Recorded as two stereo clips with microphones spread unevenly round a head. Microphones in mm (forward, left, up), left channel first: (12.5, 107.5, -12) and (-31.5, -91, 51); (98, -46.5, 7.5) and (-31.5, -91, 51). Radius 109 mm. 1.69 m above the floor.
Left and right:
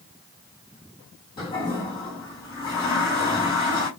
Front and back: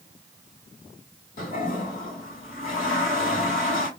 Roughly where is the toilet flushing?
Ahead.